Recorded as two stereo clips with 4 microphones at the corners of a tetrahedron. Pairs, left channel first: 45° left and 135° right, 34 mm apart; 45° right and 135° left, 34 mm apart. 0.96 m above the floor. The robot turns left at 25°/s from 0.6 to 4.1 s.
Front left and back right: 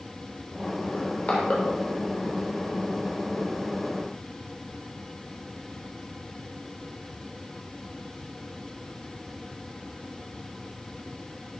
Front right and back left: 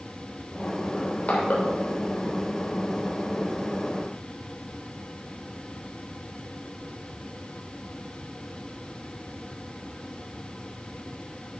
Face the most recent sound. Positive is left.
turn(degrees=-75)